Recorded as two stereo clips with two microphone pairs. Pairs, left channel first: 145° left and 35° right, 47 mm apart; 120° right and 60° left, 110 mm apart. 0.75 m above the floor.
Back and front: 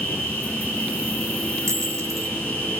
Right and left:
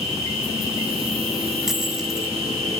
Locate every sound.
0.0 s an insect: 85° left, 4 m
1.7 s a dropped coin: 30° right, 0.8 m